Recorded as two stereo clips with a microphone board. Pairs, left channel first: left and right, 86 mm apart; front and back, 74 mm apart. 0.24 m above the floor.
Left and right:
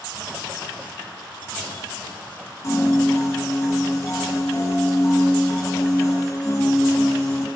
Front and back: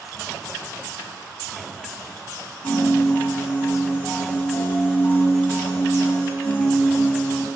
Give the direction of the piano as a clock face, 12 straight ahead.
10 o'clock.